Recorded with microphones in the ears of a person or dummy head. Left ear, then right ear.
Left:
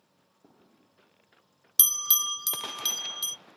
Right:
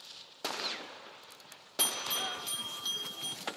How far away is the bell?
About 0.5 m.